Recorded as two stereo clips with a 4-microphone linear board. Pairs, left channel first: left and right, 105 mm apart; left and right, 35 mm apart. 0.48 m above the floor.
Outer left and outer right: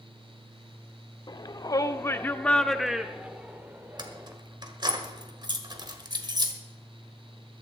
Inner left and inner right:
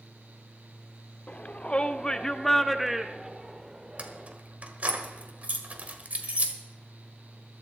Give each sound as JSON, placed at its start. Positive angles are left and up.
{"t": 1.3, "sound": "a shout", "side_deg": 40, "distance_m": 0.9}
{"t": 4.0, "sound": "keys jangling", "side_deg": -40, "distance_m": 1.5}